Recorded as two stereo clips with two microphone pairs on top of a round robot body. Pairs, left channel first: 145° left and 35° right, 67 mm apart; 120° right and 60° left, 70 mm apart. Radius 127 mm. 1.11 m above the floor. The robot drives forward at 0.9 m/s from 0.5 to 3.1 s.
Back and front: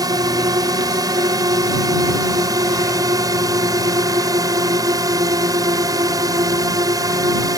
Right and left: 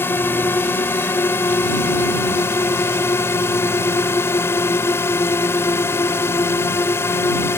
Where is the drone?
60° right; by 7.6 s 65° right.